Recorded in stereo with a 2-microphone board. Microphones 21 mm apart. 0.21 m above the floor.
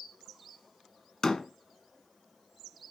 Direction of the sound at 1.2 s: 30° left (ahead or behind).